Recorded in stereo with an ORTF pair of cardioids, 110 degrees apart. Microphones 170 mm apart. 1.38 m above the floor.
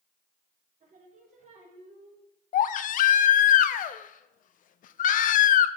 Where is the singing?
50° right, 3.5 m.